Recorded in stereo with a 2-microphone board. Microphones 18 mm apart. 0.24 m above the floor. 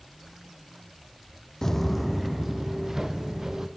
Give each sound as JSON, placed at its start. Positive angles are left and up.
{"t": 1.6, "sound": "footsteps", "side_deg": 30, "distance_m": 0.6}